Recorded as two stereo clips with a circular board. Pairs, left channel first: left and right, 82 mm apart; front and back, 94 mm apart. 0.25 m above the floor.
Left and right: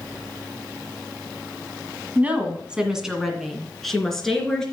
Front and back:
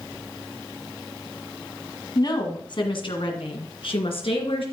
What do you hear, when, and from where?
2.1 s a woman speaking: 25° right, 1.6 m; by 4.6 s 5° left, 3.5 m